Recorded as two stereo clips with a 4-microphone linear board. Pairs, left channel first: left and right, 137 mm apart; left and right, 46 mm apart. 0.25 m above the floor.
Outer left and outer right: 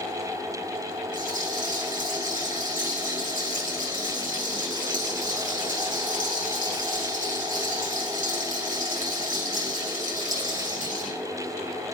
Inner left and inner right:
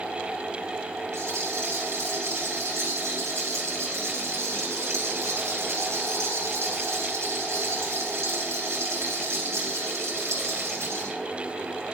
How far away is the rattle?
About 8 m.